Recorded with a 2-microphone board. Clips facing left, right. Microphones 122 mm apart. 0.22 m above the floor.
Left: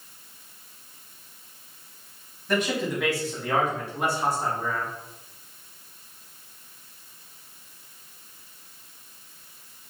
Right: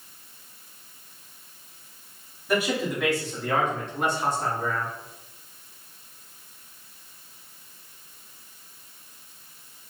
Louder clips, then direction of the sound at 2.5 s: Right 1 dB; 10° right (ahead or behind).